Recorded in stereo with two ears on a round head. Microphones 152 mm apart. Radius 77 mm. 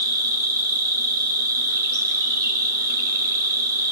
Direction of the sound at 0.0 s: 20° right (ahead or behind).